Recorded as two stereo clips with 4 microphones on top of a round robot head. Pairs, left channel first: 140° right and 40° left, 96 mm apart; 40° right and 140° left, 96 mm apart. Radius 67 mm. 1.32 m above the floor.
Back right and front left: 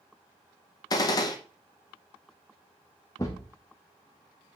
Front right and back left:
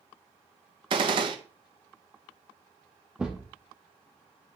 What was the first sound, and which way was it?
A gunshot, 175° left.